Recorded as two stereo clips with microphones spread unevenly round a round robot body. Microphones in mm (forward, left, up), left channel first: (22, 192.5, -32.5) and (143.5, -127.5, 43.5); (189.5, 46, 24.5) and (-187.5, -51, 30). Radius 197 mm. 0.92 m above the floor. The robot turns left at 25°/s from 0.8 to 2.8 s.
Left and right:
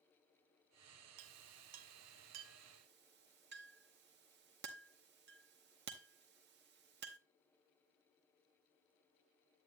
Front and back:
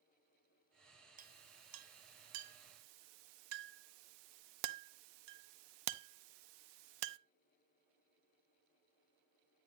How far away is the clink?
About 0.7 m.